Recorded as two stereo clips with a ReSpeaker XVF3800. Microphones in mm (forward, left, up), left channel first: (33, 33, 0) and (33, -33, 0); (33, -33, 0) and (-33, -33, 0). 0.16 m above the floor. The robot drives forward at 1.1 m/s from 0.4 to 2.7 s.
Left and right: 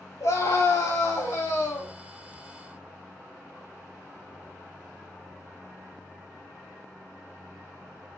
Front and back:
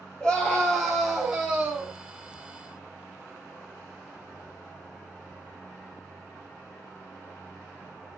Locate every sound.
0.2 s a scream: 80° left, 3.5 m; by 1.9 s 110° left, 3.5 m